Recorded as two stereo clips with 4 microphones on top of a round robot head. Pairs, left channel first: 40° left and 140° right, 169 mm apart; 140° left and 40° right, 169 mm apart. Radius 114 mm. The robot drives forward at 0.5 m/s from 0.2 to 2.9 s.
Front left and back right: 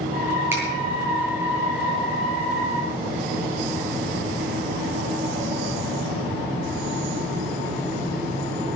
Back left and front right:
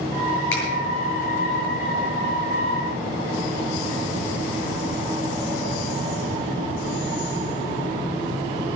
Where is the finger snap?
140° left, 8 m; by 0.6 s 145° left, 8 m.